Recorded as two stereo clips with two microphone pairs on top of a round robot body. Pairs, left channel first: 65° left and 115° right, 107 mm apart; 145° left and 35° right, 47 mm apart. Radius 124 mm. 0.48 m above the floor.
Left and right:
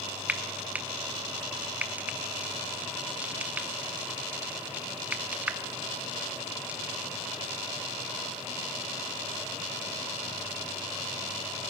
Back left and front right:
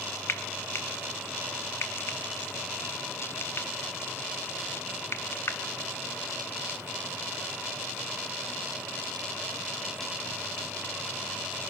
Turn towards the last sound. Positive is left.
turn(degrees=175)